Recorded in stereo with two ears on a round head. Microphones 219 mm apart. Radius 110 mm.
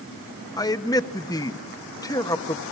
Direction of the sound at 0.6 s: 15° left (ahead or behind).